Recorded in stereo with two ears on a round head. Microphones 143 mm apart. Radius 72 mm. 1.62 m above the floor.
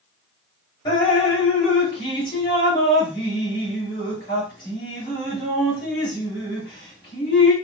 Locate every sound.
0.8 s dripping: 30° left (ahead or behind), 1.5 m